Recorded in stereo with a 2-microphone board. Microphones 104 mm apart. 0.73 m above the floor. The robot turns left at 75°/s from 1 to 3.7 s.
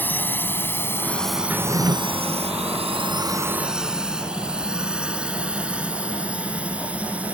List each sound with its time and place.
0.0 s a drone: 15° left (ahead or behind); by 7.3 s 10° right (ahead or behind)
1.5 s a drawer: 15° right; by 2.0 s 50° right